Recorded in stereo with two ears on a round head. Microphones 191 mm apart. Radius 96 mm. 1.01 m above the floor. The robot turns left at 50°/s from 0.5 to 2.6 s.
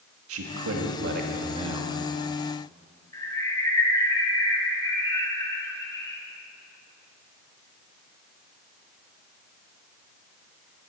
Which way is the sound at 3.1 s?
15° left (ahead or behind).